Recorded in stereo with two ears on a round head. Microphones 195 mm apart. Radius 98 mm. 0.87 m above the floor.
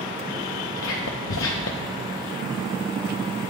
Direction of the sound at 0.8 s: 65° left (ahead or behind).